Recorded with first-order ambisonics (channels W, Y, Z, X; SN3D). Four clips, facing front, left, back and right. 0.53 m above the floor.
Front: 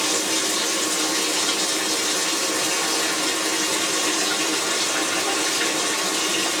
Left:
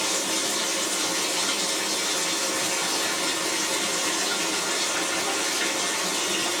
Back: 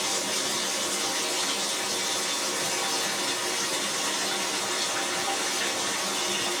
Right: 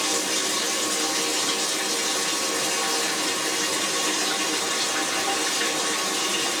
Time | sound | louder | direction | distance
0.0 | running water | right 1 dB, front 6 dB | 10° right | 0.7 m